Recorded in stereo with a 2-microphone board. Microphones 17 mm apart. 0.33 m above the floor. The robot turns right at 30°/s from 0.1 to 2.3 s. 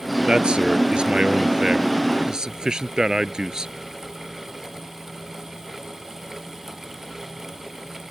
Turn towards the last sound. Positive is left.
turn(degrees=-50)